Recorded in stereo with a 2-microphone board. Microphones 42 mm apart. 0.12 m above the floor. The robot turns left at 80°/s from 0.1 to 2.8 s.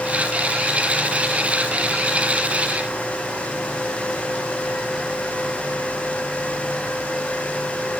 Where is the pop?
No pop in this recording.